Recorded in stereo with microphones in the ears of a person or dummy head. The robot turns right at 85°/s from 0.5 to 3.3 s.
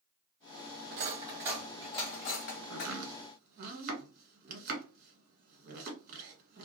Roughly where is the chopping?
Right.